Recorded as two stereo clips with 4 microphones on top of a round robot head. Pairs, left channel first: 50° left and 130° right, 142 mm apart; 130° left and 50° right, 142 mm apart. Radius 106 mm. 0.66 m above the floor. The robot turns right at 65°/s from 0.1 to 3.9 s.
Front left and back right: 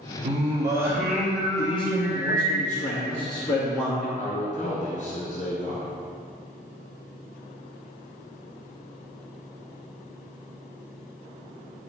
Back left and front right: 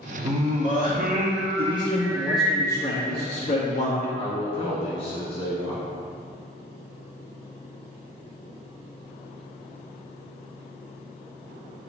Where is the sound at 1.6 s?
10° right, 1.1 m; by 4.1 s 140° left, 1.1 m.